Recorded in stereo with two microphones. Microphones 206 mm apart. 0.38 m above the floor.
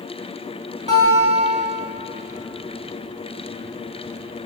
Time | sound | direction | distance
0.9 | a guitar | 30° right (ahead or behind) | 1.2 m